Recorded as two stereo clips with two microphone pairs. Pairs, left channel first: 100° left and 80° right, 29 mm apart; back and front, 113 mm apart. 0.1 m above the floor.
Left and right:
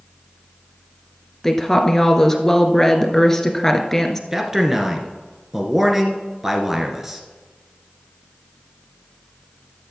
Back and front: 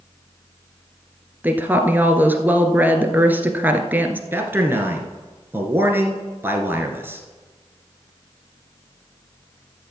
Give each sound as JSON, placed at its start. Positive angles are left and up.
{"t": 1.4, "sound": "a woman speaking", "azimuth_deg": 50, "distance_m": 1.2}
{"t": 4.3, "sound": "a man speaking", "azimuth_deg": -20, "distance_m": 1.6}